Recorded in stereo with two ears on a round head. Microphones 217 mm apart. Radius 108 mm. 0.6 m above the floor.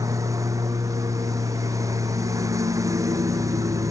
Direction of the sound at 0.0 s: 15° right (ahead or behind).